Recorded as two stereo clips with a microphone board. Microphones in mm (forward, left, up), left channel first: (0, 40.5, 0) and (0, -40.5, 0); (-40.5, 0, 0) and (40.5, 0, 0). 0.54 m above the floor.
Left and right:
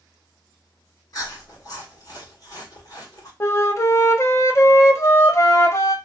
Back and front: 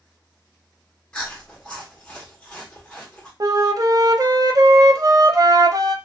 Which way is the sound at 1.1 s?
105° left.